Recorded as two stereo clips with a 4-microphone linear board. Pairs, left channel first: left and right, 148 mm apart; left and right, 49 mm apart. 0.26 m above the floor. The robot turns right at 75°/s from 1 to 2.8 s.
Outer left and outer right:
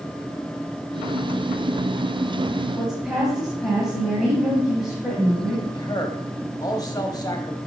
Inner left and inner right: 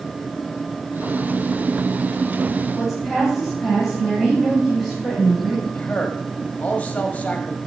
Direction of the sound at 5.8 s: 25° left (ahead or behind).